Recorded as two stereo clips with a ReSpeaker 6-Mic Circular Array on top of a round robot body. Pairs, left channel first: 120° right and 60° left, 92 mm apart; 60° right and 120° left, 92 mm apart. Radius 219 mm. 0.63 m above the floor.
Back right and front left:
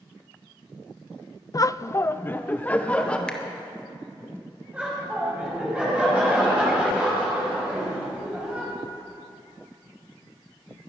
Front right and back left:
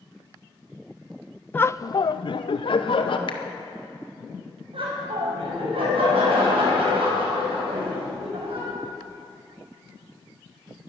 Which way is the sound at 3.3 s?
40° right.